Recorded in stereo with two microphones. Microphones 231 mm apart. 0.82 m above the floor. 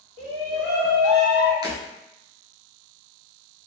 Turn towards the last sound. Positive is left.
turn(degrees=-15)  # may be behind; listen again after turning